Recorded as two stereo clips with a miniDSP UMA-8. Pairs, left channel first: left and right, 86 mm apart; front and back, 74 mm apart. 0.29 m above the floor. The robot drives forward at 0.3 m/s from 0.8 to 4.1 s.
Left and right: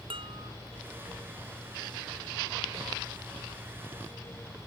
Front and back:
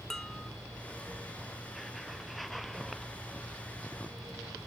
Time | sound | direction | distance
0.1 | dishes clattering | 85° right | ?